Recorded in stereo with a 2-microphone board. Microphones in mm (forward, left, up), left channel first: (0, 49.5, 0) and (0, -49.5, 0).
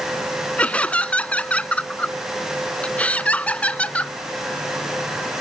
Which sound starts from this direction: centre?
Laughter, at 0.6 s.